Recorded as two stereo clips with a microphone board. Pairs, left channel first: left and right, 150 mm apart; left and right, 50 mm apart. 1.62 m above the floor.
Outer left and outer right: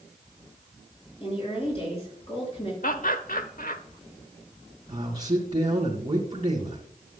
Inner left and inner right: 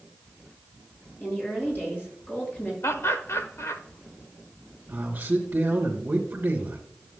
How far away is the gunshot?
I don't hear a gunshot.